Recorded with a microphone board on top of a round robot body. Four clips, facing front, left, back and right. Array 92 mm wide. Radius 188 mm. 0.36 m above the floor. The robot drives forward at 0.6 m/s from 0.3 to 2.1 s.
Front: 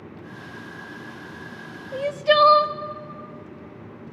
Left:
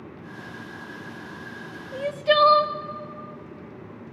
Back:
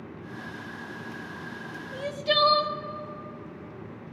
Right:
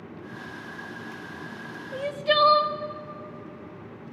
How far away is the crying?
About 0.6 m.